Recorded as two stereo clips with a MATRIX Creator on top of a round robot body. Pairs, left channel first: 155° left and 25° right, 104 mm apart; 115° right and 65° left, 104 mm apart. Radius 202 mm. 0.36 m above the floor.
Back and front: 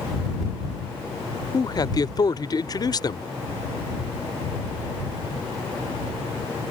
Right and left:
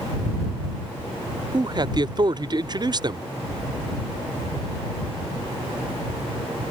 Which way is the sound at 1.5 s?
110° left.